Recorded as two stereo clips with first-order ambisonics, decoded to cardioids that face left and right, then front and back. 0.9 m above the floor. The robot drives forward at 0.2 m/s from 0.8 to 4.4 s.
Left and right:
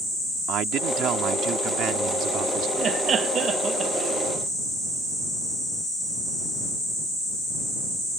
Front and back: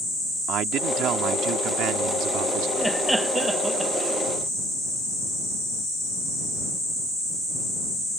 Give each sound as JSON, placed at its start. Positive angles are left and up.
{"t": 0.5, "sound": "a man speaking", "azimuth_deg": -135}
{"t": 2.8, "sound": "laughter", "azimuth_deg": -90}